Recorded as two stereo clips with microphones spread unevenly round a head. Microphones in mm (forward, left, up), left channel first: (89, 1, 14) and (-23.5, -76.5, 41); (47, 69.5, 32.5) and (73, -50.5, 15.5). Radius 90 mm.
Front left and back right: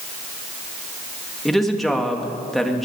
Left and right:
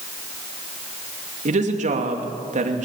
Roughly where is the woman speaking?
Ahead right.